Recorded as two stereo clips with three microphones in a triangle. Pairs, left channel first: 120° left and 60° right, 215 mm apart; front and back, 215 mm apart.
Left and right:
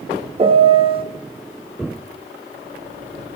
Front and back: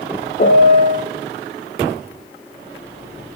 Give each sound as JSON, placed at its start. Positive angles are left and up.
{"t": 0.4, "sound": "a piano", "azimuth_deg": -10, "distance_m": 0.6}